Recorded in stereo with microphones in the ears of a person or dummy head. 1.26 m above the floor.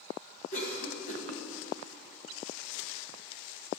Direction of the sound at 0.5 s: 45° left (ahead or behind).